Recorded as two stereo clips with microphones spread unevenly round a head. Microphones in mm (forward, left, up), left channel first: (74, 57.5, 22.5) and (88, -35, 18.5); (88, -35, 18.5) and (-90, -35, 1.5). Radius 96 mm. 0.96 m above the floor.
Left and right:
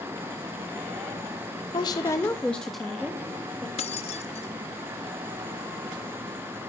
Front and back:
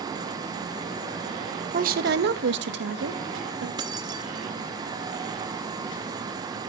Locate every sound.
1.7 s a woman speaking: 140° left, 0.9 m; by 3.7 s 160° right, 2.5 m
3.8 s keys jangling: 110° left, 0.8 m